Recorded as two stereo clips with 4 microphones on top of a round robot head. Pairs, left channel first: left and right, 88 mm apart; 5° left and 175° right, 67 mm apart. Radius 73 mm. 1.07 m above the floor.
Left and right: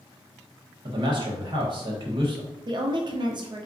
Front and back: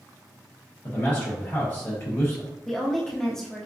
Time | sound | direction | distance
0.8 | a man speaking | 60° right | 1.0 m
2.7 | a woman speaking | 80° right | 0.5 m